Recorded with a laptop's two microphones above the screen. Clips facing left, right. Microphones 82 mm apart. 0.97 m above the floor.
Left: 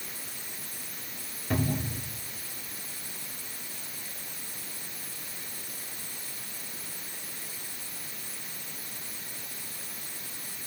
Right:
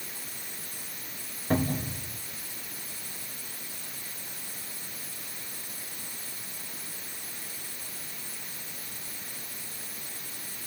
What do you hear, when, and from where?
1.5 s a cupboard door: 25° right (ahead or behind), 3 m